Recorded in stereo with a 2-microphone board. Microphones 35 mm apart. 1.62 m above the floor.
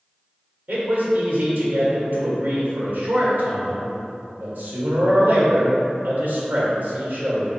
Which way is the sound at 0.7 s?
75° right (ahead or behind).